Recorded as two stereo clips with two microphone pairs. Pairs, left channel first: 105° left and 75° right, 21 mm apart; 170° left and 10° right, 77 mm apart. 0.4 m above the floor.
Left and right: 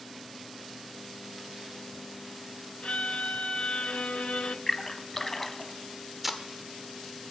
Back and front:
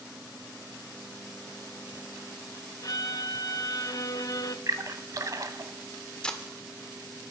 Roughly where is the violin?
Behind left.